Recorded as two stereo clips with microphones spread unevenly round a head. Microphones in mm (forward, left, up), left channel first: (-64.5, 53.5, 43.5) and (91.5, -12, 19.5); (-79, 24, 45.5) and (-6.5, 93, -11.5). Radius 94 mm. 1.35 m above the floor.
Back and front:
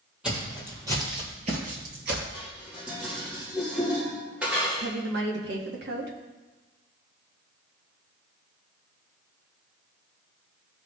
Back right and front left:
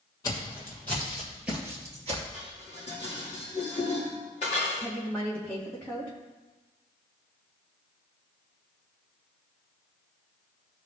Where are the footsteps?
115° right, 2.5 m; by 2.2 s 25° right, 1.7 m.